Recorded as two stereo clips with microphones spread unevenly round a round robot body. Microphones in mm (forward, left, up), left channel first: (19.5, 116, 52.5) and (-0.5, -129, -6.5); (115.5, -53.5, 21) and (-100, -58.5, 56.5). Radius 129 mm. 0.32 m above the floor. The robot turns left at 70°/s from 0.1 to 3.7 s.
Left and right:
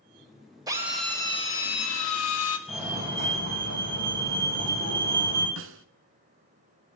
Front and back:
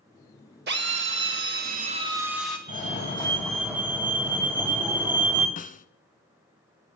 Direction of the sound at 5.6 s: 55° right.